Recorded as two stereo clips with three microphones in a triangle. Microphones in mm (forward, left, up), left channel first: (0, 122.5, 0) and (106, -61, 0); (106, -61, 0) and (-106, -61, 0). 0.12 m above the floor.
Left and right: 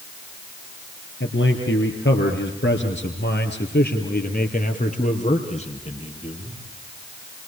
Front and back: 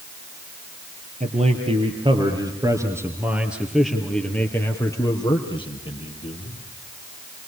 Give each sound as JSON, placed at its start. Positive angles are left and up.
{"t": 1.2, "sound": "a man speaking", "azimuth_deg": 130, "distance_m": 3.0}